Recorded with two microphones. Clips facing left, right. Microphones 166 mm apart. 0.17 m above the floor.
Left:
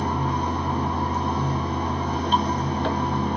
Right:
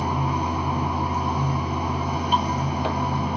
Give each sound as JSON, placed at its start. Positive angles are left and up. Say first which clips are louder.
{"t": 0.0, "sound": "running water", "louder": "even", "side_deg": -10, "distance_m": 0.9}